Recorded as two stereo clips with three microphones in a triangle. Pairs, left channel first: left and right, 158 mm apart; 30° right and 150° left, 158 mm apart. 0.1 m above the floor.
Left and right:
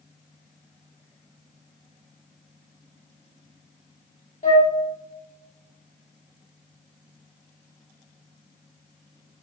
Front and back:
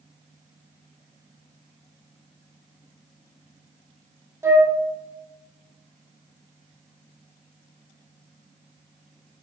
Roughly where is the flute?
Left.